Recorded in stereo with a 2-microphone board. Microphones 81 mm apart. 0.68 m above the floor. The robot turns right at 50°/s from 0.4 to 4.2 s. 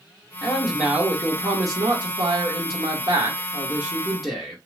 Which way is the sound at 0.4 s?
170° left.